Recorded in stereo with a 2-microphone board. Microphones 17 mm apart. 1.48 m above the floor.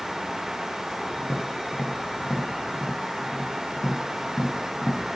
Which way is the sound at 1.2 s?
55° left (ahead or behind).